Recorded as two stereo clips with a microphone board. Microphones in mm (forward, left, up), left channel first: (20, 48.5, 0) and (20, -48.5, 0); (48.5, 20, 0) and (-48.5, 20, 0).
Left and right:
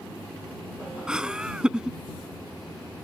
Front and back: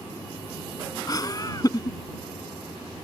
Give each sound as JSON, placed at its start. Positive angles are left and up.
{"t": 1.1, "sound": "laughter", "azimuth_deg": -10}